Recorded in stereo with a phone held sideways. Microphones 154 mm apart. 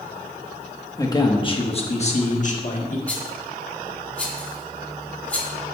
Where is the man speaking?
20° left (ahead or behind), 1.1 m; by 3.0 s 55° left (ahead or behind), 1.8 m.